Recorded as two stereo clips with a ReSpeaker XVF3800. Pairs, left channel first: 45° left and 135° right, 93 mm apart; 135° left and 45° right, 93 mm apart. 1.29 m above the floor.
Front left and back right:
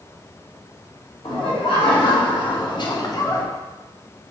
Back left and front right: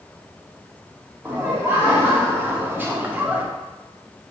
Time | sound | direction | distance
1.2 | laughter | 25° left | 1.7 m